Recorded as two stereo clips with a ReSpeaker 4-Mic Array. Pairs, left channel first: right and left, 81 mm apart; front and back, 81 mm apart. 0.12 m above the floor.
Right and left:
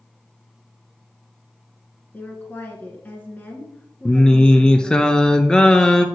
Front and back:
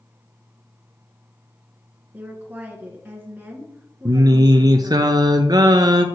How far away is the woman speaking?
About 1.4 m.